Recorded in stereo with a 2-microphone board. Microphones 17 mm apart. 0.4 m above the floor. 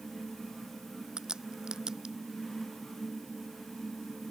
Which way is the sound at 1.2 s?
45° right (ahead or behind).